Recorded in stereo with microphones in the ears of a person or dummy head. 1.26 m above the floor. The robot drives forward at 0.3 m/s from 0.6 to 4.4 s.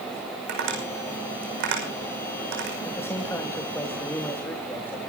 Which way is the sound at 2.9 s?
10° left (ahead or behind).